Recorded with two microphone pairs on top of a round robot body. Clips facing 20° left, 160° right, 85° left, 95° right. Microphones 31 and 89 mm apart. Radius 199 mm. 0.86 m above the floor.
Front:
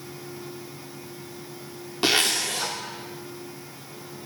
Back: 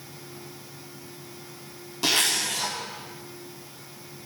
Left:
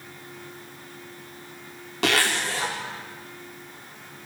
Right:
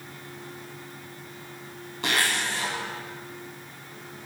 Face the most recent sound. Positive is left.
turn(degrees=75)